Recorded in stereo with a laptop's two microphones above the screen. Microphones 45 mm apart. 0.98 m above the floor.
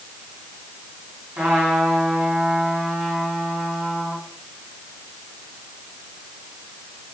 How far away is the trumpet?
About 4 m.